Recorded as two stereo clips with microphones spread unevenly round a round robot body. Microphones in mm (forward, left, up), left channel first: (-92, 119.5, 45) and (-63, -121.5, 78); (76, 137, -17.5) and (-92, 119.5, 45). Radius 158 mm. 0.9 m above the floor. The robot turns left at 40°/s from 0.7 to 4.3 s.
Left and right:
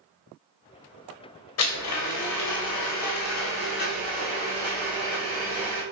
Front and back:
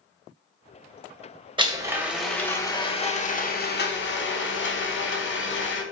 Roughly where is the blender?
Behind left.